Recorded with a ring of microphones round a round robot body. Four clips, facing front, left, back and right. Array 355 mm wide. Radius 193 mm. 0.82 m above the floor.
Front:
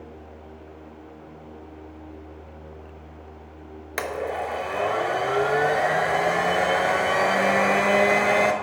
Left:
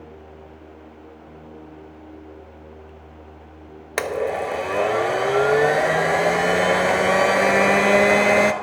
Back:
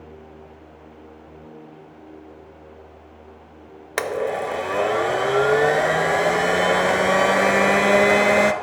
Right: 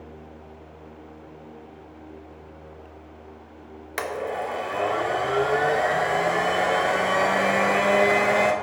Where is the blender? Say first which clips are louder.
Left 5 dB, back 4 dB; 130° left, 0.6 m.